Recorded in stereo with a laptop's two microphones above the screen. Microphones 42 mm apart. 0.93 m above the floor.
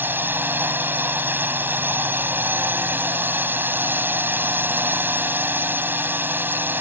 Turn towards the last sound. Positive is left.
turn(degrees=-55)  # may be behind; listen again after turning